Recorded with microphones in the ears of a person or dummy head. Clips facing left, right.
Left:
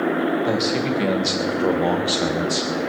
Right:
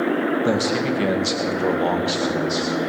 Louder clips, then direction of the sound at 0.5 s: Right 1 dB; 20° right (ahead or behind).